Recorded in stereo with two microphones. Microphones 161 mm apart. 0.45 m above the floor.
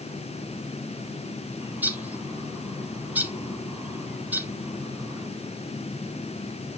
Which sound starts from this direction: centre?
A bird, at 1.6 s.